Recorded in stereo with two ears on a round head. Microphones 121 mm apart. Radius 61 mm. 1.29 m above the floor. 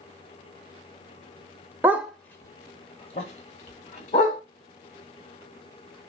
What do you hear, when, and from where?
1.8 s a dog barking: 15° right (ahead or behind), 0.7 m; by 4.4 s 65° left (ahead or behind), 2 m